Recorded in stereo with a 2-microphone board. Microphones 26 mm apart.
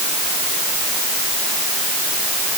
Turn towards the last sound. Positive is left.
No sound to turn to.